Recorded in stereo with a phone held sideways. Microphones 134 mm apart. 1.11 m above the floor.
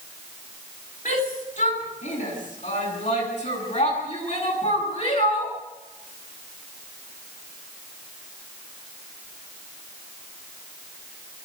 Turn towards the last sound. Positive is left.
turn(degrees=55)  # may be behind; listen again after turning